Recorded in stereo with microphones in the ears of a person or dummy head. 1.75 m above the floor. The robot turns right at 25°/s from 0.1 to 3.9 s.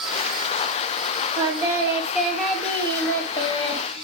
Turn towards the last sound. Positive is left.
turn(degrees=40)